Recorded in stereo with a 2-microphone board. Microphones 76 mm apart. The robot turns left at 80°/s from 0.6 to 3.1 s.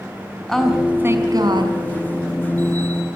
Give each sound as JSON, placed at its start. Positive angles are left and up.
{"t": 0.5, "sound": "a woman speaking", "azimuth_deg": 5, "distance_m": 5.0}